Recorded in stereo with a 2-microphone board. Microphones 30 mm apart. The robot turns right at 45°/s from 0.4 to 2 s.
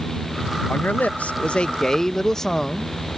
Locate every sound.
0.7 s a man speaking: 105° left; by 2.9 s 165° left